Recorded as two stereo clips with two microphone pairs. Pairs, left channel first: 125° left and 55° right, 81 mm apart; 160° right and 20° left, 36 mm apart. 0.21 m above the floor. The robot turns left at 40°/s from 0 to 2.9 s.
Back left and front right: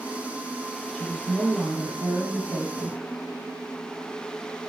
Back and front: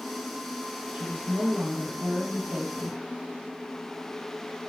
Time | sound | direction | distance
0.9 | a woman speaking | 50° left | 4 m